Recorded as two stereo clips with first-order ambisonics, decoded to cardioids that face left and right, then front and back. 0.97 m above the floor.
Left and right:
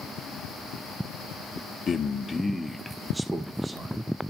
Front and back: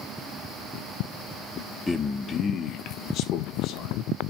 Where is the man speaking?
75° left, 0.8 m; by 4.1 s 20° right, 1.3 m.